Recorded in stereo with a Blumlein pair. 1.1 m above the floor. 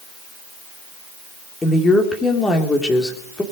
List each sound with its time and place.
1.6 s a woman speaking: 10° left, 3 m